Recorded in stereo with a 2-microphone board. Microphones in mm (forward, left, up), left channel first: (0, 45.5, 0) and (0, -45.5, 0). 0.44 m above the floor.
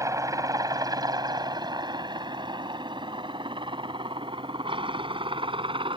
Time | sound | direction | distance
0.0 | a helicopter | 40° right (ahead or behind) | ?